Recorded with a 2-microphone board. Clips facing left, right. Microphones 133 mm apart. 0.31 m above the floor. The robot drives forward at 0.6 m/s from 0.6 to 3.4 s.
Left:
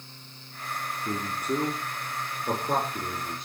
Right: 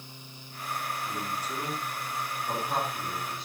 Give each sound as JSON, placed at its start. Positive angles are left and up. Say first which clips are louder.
{"t": 1.1, "sound": "a man speaking", "louder": "left 5 dB", "side_deg": 60, "distance_m": 4.5}